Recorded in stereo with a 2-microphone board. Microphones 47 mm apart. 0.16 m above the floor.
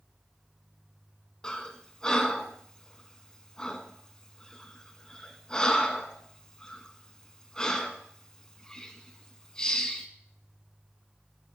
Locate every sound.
1.4 s breathing: 15° left (ahead or behind), 0.7 m